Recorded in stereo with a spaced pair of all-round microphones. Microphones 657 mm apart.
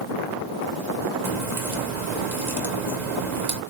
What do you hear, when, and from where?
1.2 s a crack: 80° right, 1.2 m